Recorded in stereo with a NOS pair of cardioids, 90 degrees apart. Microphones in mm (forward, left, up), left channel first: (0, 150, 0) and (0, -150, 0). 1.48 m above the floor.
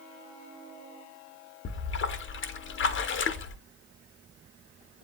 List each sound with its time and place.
1.6 s a splash: 40° left, 0.7 m